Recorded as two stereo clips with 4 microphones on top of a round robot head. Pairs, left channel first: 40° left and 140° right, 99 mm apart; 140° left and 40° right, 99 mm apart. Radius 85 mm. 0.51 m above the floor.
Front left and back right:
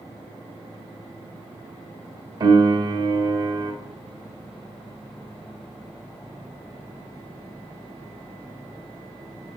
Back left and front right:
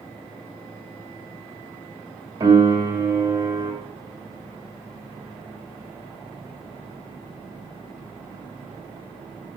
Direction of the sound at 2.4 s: 95° right.